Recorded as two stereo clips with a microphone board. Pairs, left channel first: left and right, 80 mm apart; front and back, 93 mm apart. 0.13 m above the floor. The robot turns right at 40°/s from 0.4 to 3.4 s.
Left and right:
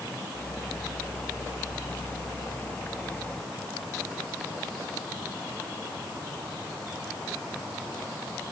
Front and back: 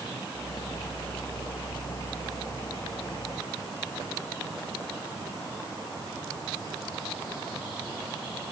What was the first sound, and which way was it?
Only background noise.